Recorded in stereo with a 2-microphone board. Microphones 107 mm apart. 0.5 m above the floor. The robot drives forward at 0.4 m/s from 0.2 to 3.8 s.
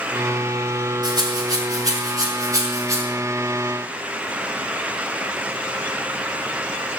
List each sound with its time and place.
1.0 s a rattle: 40° right (ahead or behind), 2.5 m; by 3.0 s 30° right (ahead or behind), 3 m